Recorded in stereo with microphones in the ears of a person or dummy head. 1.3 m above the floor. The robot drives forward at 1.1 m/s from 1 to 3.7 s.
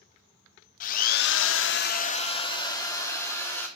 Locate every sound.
0.8 s a drill: 45° left (ahead or behind), 0.9 m; by 3.7 s 15° left (ahead or behind), 2.5 m